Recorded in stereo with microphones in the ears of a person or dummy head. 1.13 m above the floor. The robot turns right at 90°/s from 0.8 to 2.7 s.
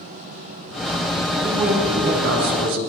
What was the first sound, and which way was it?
A man speaking, 150° left.